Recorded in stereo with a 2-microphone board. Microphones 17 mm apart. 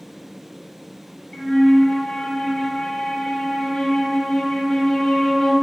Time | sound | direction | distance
1.3 | a flute | 60° left (ahead or behind) | 0.7 m